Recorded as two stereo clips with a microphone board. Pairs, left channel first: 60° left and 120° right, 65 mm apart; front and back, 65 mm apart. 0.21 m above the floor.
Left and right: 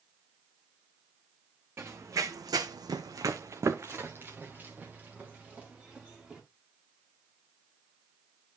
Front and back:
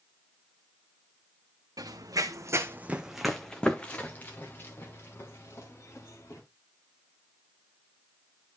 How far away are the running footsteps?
About 1.3 m.